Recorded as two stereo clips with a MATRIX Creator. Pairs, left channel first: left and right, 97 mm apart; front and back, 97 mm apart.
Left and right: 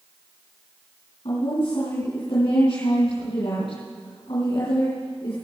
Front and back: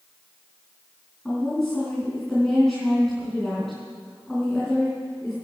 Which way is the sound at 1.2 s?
85° left.